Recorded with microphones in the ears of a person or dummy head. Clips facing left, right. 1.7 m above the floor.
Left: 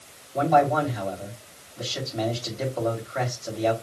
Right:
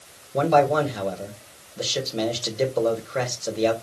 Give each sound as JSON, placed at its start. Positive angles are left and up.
{"t": 0.3, "sound": "a man speaking", "side_deg": -45, "distance_m": 3.0}